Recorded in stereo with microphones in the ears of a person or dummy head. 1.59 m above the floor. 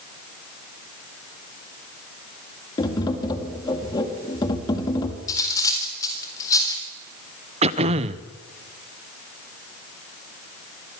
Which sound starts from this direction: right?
Throat clearing, at 7.6 s.